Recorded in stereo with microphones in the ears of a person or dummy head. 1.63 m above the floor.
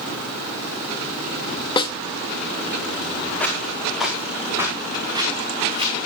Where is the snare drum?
30° left (ahead or behind), 1.3 m.